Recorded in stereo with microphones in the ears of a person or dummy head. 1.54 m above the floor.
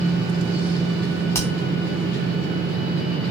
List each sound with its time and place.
1.3 s hammering: 15° left (ahead or behind), 1.2 m